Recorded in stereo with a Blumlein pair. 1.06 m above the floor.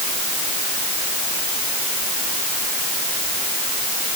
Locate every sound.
Only background noise.